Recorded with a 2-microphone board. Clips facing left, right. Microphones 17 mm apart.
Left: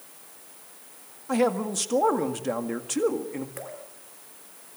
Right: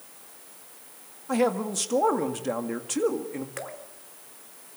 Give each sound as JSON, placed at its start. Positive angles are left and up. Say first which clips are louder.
{"t": 1.3, "sound": "a man speaking", "louder": "left 1 dB", "side_deg": 5, "distance_m": 1.8}
{"t": 3.6, "sound": "dripping", "louder": "right 2 dB", "side_deg": -40, "distance_m": 2.5}